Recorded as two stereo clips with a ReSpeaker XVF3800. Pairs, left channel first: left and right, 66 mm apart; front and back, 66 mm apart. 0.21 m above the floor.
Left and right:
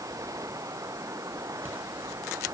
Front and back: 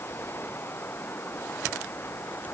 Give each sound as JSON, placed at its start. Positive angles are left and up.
{"t": 0.0, "sound": "running water", "azimuth_deg": -55}